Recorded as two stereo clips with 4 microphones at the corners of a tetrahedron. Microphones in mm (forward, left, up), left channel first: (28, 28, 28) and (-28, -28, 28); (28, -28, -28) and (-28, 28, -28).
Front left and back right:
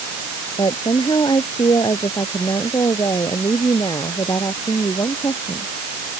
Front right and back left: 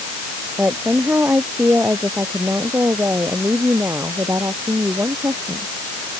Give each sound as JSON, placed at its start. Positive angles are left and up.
{"t": 0.6, "sound": "a woman speaking", "azimuth_deg": 70}